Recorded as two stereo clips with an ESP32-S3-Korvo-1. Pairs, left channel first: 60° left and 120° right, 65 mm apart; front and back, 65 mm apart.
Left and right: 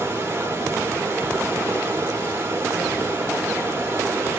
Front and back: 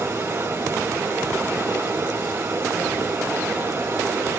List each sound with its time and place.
0.0 s running water: 150° right, 1.5 m